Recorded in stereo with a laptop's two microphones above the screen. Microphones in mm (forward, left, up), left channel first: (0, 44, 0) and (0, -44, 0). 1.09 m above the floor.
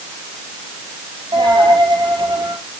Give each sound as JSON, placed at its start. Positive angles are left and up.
{"t": 1.3, "sound": "a dropped coin", "side_deg": -65, "distance_m": 6.0}